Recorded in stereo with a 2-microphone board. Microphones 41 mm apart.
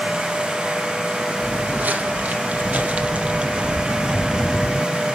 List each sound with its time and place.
1.4 s footsteps: 45° right (ahead or behind), 3 m; by 4.9 s 5° left (ahead or behind), 1.2 m